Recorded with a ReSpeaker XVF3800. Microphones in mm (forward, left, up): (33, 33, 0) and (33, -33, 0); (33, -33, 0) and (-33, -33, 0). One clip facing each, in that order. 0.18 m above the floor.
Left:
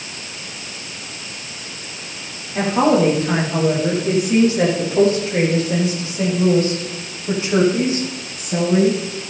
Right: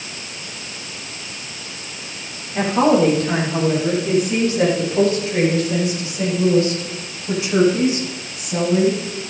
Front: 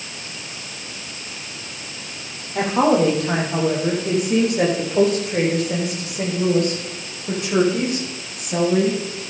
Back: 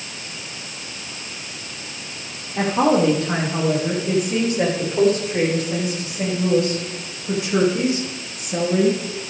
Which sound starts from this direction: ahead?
A woman speaking, at 2.5 s.